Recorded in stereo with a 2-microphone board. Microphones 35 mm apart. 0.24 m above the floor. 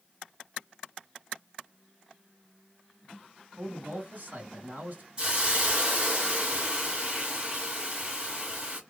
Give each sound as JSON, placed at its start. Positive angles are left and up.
{"t": 3.6, "sound": "a man speaking", "side_deg": -55, "distance_m": 2.5}
{"t": 5.2, "sound": "a hiss", "side_deg": -25, "distance_m": 1.9}